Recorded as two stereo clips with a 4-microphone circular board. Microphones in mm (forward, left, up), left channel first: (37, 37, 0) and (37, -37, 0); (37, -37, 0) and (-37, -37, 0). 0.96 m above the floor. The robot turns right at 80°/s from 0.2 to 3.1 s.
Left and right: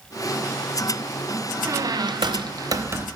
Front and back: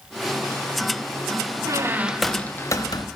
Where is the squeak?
135° right, 0.7 m; by 3.1 s 25° right, 0.7 m.